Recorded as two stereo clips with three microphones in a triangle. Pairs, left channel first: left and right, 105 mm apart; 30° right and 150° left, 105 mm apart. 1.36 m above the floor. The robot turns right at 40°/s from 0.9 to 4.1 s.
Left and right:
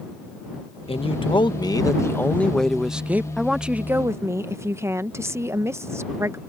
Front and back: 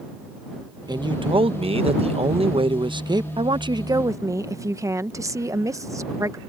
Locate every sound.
0.9 s a man speaking: 105° left; by 3.3 s 160° right
3.4 s a woman speaking: straight behind; by 6.4 s 150° right